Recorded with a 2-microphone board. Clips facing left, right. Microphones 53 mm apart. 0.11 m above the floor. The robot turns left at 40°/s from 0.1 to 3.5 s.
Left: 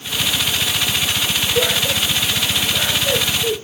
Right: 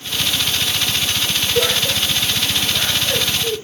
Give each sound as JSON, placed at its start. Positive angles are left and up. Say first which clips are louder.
{"t": 1.6, "sound": "laughter", "louder": "even", "side_deg": -20, "distance_m": 4.0}